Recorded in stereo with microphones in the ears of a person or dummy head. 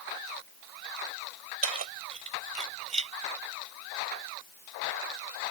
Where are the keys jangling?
40° right (ahead or behind); by 3.1 s 35° right (ahead or behind).